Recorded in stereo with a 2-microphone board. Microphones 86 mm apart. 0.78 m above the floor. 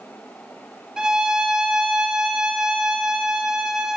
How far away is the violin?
About 0.9 m.